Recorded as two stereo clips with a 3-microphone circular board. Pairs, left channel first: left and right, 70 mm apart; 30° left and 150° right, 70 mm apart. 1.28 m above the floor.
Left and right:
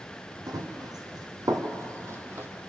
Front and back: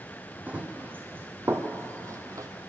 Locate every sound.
0.5 s running footsteps: 85° right, 3 m; by 2.5 s 140° right, 1.9 m